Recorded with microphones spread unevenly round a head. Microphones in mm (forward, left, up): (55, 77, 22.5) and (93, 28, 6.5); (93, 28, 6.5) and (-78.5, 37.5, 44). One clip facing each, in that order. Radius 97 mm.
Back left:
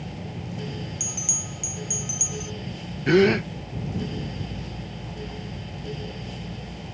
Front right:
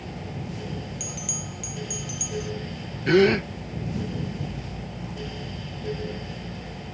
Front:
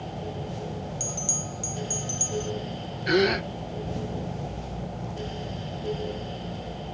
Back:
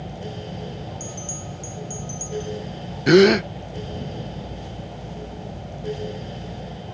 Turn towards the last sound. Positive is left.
turn(degrees=-140)